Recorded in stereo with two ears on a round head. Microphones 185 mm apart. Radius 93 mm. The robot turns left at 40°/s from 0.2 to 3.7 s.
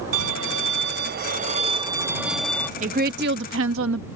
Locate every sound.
0.1 s a violin: 90° right; by 2.7 s 170° left
2.8 s a woman speaking: 35° right; by 4.0 s 70° right